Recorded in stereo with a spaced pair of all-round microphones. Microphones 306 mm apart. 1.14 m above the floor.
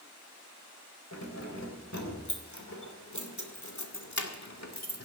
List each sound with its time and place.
1.1 s keys jangling: 65° left (ahead or behind), 3.5 m; by 5.0 s 55° left (ahead or behind), 1.7 m